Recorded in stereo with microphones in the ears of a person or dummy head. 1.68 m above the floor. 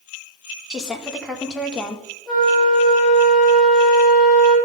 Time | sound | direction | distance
0.7 | a woman speaking | 5° right (ahead or behind) | 1.4 m
2.3 | a flute | 5° right (ahead or behind) | 3.5 m